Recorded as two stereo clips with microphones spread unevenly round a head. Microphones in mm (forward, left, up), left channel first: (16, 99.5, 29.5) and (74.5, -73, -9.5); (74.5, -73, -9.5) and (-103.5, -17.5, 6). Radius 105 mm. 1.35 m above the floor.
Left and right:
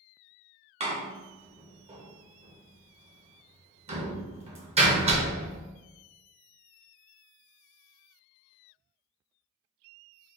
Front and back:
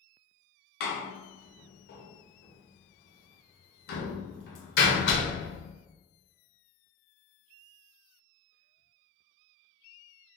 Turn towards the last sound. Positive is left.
turn(degrees=-15)